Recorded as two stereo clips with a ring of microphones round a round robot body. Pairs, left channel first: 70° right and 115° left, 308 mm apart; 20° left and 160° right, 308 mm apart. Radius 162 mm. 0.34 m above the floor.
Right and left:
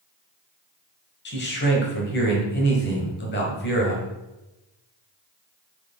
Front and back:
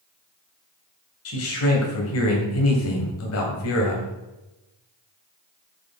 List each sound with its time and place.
1.2 s a man speaking: 15° right, 2 m